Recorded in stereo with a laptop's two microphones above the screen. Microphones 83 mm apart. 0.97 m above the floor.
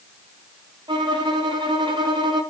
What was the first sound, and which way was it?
A violin, 70° right (ahead or behind).